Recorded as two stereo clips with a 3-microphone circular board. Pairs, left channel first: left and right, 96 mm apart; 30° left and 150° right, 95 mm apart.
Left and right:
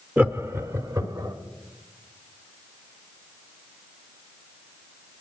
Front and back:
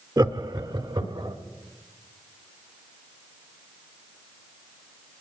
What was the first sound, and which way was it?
Laughter, 155° right.